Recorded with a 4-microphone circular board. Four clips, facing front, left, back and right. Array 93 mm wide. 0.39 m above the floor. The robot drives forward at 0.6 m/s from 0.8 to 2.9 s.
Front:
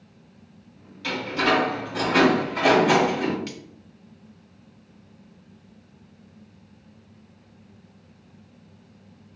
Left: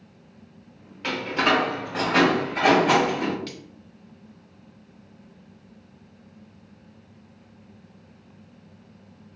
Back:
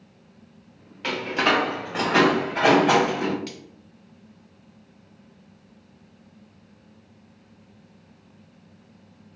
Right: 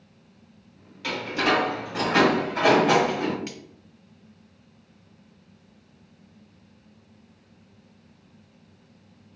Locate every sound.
1.0 s a door slam: 145° left, 0.9 m; by 3.4 s 170° left, 1.8 m
3.5 s cutlery clinking: 85° right, 0.6 m